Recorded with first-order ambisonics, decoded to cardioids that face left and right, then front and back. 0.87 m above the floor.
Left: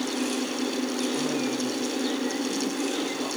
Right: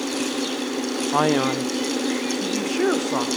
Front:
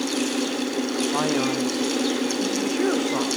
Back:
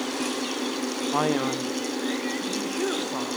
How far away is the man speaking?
About 0.8 m.